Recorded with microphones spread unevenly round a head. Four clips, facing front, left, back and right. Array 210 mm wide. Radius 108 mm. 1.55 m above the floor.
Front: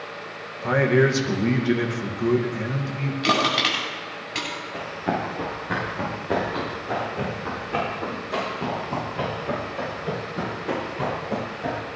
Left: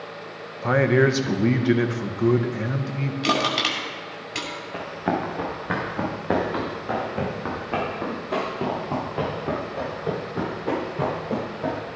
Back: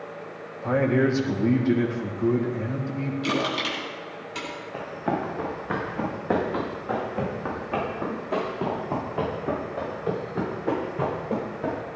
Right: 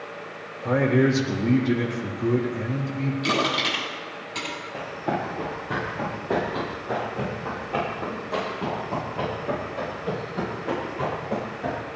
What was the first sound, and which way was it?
A man speaking, 60° left.